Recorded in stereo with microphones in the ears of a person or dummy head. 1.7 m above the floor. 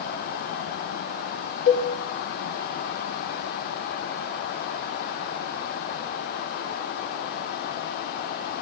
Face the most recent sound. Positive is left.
turn(degrees=50)  # may be behind; listen again after turning